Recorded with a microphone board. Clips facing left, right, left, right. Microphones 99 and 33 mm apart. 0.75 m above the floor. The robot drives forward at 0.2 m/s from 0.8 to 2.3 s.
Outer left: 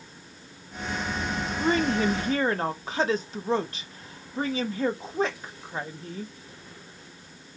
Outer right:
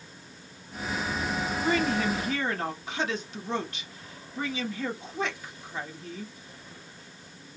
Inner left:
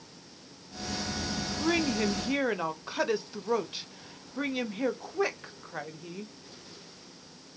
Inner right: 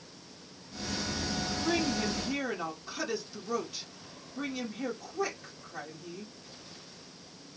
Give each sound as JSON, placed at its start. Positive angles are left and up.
{"t": 1.6, "sound": "a woman speaking", "side_deg": 35, "distance_m": 0.6}